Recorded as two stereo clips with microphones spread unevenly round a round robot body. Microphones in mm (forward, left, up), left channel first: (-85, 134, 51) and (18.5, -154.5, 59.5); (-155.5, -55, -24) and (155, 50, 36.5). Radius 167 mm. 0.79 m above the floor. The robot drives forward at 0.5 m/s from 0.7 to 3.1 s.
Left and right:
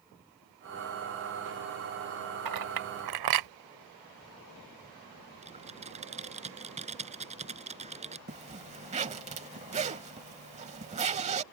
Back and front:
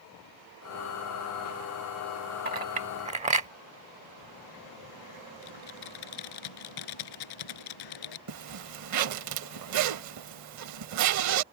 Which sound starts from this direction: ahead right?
A clink, at 2.5 s.